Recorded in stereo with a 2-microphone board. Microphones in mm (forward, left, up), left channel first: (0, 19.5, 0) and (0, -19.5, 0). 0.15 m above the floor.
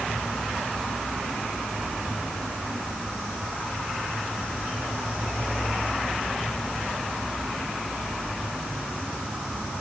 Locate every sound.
Only background noise.